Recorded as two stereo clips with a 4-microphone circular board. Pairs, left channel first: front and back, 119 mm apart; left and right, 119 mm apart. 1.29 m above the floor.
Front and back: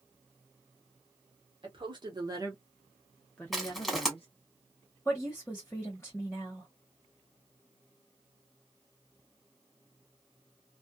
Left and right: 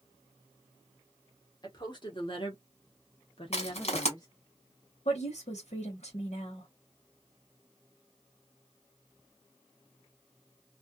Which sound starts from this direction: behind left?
A woman speaking, at 1.6 s.